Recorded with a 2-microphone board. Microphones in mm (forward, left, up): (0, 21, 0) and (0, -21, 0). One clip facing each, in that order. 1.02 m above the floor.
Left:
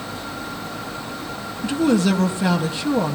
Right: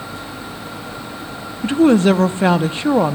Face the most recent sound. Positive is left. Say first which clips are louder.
# right 6 dB
turn(degrees=-35)  # may be behind; listen again after turning